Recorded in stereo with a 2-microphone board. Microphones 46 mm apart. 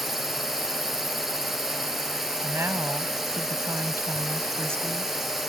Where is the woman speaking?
70° right (ahead or behind).